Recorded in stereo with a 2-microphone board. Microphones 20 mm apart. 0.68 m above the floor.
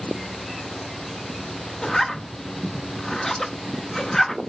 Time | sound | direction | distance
1.8 | a zipper | 30° left (ahead or behind) | 1.0 m